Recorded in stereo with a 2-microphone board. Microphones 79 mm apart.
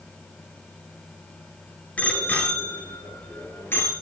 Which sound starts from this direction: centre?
A bicycle bell, at 2.0 s.